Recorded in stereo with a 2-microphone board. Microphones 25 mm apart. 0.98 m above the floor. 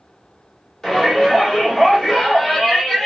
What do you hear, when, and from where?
0.8 s a shout: 10° left (ahead or behind), 1.9 m